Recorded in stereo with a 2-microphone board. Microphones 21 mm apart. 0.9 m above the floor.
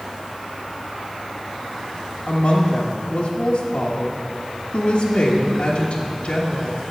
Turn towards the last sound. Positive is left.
turn(degrees=55)  # may be behind; listen again after turning